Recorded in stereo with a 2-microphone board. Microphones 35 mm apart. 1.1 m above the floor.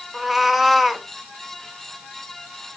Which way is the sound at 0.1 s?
Centre (ahead or behind).